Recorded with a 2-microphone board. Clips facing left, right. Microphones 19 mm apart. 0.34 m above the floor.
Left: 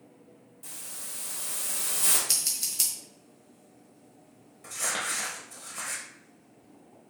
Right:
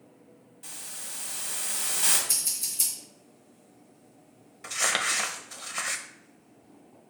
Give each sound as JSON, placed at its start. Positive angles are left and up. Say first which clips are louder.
{"t": 0.6, "sound": "a hiss", "louder": "right 2 dB", "side_deg": -20, "distance_m": 1.4}
{"t": 2.3, "sound": "scissors", "louder": "left 1 dB", "side_deg": 45, "distance_m": 1.4}
{"t": 4.6, "sound": "crumpling", "louder": "right 5 dB", "side_deg": -50, "distance_m": 0.5}